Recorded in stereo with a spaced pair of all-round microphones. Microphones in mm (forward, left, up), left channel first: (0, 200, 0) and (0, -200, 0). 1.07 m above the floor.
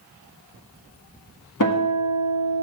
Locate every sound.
1.6 s a guitar: 50° left (ahead or behind), 1.8 m